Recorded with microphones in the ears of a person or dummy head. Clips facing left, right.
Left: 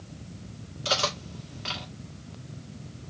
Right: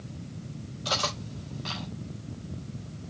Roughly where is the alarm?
I don't hear an alarm.